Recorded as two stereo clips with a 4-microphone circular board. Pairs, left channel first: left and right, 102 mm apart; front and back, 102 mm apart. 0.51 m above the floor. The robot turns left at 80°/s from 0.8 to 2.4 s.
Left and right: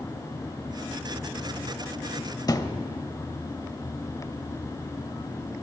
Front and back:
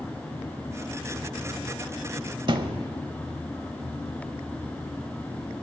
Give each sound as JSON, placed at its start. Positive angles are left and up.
{"t": 2.5, "sound": "a thud", "azimuth_deg": 140, "distance_m": 0.8}